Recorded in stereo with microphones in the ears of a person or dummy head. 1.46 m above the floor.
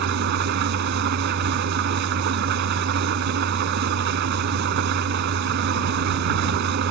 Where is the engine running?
60° right (ahead or behind).